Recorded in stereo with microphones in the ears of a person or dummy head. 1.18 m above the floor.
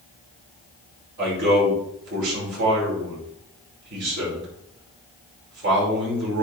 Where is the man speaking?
60° right (ahead or behind), 5 m.